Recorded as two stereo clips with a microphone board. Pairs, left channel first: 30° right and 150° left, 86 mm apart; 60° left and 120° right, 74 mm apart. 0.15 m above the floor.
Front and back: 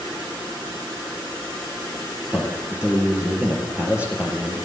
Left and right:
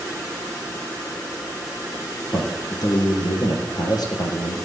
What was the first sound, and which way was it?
A man speaking, 75° left.